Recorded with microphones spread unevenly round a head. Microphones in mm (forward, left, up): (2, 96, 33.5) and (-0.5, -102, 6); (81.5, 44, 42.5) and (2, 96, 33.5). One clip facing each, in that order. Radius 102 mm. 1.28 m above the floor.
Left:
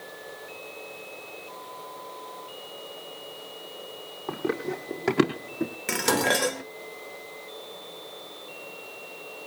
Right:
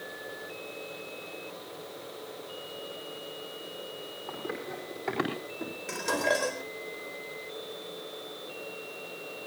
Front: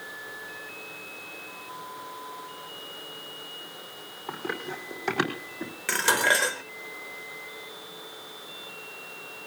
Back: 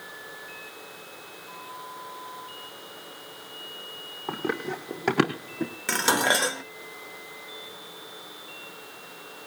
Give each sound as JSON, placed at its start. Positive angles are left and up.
{"t": 4.3, "sound": "running footsteps", "azimuth_deg": 105, "distance_m": 4.0}
{"t": 5.9, "sound": "dishes clattering", "azimuth_deg": 75, "distance_m": 1.2}